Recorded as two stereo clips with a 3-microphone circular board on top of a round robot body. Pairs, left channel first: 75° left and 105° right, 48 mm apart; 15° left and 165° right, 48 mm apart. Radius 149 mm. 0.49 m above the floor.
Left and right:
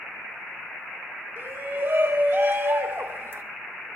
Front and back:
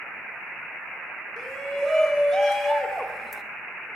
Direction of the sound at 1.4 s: 70° right.